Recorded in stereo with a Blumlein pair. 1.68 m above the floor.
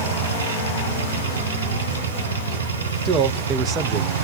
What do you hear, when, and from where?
0.0 s a machine running: 65° right, 0.9 m
3.0 s a man speaking: 25° right, 0.8 m